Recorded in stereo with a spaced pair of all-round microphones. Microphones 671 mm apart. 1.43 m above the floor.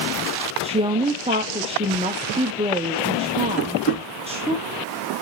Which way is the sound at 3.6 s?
20° left (ahead or behind).